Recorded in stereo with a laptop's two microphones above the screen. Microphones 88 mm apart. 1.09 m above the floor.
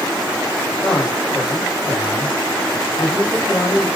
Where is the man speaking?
10° left (ahead or behind), 3.5 m.